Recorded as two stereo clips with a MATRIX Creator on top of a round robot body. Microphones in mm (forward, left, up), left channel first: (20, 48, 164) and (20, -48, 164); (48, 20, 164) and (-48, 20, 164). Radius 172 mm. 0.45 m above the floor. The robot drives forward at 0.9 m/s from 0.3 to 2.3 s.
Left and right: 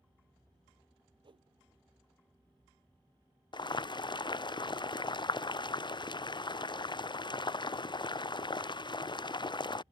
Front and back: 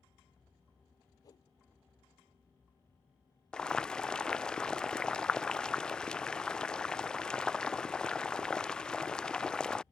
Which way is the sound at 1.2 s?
55° right.